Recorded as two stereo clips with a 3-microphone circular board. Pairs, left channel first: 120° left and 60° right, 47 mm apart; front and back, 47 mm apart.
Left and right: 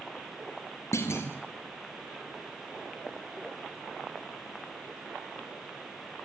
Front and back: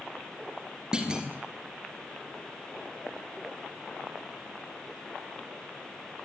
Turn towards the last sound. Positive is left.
turn(degrees=110)